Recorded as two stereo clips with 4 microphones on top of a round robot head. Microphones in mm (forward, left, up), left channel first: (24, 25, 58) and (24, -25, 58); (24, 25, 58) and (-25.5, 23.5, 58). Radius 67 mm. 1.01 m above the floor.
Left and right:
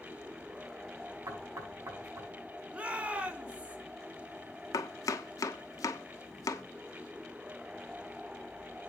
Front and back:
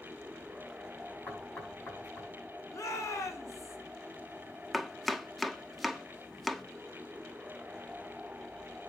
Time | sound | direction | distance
1.3 | knocking | 65° right | 5.5 m
2.7 | a shout | 25° right | 3 m
4.7 | chopping | 90° left | 1.1 m